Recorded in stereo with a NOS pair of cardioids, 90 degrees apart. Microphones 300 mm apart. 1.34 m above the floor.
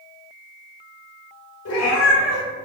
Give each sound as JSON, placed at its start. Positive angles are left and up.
{"t": 1.6, "sound": "a cat meowing", "azimuth_deg": 60, "distance_m": 1.7}